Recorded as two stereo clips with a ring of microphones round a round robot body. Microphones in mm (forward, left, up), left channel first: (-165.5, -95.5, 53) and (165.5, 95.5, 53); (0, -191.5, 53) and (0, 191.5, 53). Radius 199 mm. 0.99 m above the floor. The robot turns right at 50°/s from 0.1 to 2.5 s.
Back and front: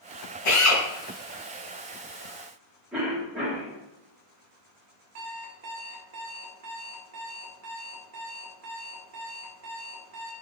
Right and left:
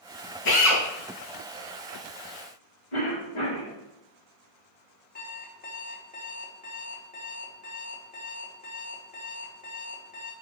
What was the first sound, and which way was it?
A drill, 150° right.